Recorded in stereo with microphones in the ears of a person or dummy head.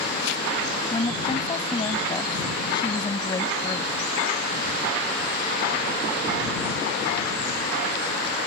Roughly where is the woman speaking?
Left.